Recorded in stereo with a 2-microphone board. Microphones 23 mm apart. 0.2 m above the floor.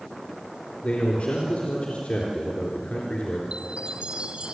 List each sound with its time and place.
0.8 s a man speaking: 65° left (ahead or behind), 3.5 m
3.5 s a chime: 55° right (ahead or behind), 1.4 m